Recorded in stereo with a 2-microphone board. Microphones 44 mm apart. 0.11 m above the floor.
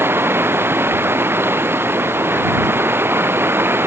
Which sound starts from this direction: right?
Running water, at 0.0 s.